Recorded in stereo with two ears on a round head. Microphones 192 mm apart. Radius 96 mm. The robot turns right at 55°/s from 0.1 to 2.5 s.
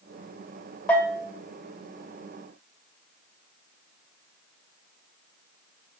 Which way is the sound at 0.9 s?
5° left (ahead or behind).